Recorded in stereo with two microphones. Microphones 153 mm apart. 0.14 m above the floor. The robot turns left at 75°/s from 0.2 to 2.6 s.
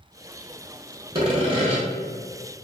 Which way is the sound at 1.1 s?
55° right.